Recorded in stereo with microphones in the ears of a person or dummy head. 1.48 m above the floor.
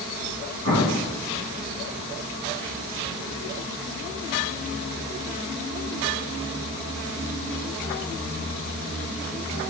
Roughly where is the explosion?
Left.